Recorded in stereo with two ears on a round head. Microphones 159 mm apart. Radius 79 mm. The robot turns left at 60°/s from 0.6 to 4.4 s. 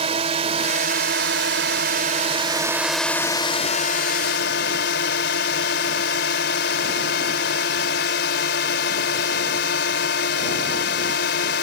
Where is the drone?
40° right; by 11.6 s 95° left.